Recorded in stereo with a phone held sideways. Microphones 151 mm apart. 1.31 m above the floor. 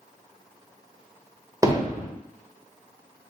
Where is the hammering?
20° right (ahead or behind), 0.6 m.